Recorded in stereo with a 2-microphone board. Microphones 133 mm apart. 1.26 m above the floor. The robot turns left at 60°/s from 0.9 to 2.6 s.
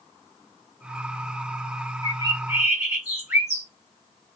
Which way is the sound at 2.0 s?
130° right.